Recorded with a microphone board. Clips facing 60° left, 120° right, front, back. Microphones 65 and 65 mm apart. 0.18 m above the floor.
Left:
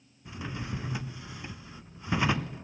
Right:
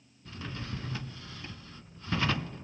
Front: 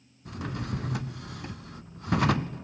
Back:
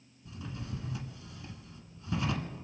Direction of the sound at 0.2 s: 15° right.